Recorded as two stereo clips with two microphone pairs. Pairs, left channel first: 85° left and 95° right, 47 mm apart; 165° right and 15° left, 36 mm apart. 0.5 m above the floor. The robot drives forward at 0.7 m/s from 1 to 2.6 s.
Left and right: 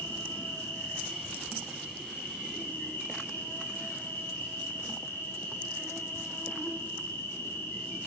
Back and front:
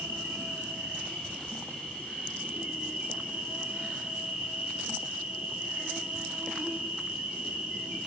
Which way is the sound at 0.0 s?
45° left.